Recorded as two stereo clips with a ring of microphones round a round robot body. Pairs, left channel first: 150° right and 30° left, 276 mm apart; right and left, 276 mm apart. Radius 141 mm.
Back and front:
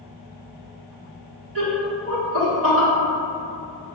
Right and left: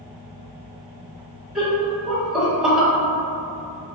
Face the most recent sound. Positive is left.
turn(degrees=0)